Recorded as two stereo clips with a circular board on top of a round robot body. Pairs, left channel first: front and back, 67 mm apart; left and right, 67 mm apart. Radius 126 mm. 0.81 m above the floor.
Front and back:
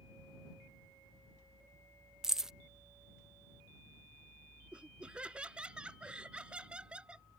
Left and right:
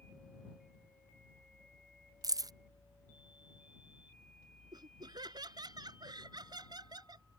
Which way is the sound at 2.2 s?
100° right.